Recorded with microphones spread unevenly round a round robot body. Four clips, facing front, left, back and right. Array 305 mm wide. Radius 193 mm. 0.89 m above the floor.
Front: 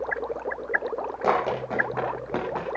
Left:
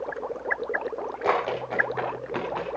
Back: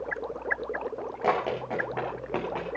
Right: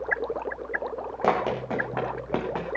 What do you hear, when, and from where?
1.2 s running footsteps: 80° right, 3.5 m; by 2.7 s 75° right, 4 m